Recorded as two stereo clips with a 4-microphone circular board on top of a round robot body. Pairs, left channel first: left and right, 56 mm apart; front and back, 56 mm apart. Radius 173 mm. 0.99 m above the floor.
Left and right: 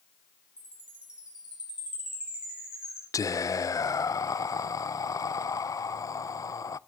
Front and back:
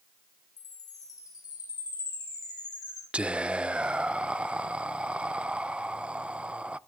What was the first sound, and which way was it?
A chime, 15° right.